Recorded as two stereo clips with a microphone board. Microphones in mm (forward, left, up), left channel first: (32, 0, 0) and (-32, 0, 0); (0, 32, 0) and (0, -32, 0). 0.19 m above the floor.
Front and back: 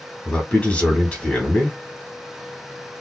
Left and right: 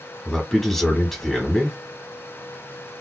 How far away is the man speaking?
About 1.5 m.